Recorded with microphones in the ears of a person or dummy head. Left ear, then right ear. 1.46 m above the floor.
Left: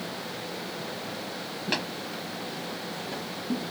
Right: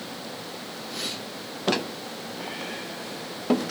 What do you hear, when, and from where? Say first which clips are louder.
1.7 s tapping: left 1 dB; 5° right (ahead or behind), 1.1 m